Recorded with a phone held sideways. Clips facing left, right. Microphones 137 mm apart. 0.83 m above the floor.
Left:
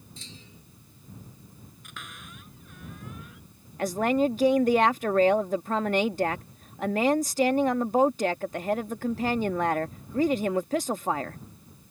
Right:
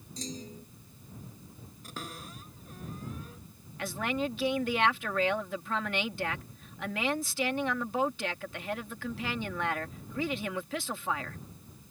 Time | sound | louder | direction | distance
0.2 | a clunk | right 13 dB | 40° right (ahead or behind) | ?
1.8 | a cupboard door | right 4 dB | 35° right (ahead or behind) | ?
3.8 | a woman speaking | left 9 dB | 45° left (ahead or behind) | ?